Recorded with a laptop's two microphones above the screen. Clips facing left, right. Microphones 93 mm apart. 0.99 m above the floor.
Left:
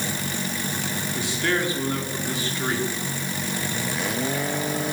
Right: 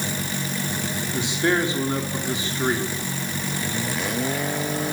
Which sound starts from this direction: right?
A man speaking, at 1.1 s.